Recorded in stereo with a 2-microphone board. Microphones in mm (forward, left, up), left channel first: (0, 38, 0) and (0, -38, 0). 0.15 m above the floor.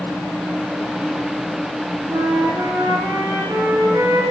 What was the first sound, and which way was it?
A flute, 55° right (ahead or behind).